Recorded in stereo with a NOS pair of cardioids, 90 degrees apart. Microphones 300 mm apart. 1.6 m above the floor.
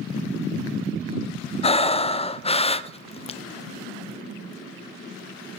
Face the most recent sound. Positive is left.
turn(degrees=20)